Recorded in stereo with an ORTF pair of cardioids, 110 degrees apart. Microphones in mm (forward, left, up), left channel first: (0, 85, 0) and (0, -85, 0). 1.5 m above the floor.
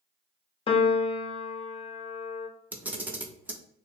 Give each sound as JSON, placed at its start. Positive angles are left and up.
{"t": 0.7, "sound": "a piano", "azimuth_deg": 35, "distance_m": 0.6}
{"t": 2.7, "sound": "a camera shutter", "azimuth_deg": -10, "distance_m": 0.7}